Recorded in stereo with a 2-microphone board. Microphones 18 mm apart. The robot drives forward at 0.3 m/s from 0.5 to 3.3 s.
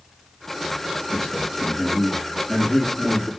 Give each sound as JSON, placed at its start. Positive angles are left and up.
{"t": 1.1, "sound": "a man speaking", "side_deg": -55, "distance_m": 2.0}